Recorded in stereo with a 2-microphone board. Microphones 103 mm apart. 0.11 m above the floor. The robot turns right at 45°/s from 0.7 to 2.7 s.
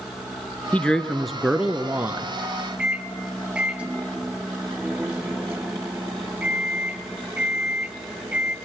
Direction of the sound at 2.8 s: 10° right (ahead or behind).